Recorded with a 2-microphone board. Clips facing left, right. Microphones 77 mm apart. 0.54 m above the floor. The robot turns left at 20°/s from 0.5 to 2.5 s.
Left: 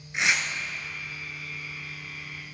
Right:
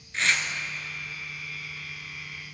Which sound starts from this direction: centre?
Tearing paper, at 0.1 s.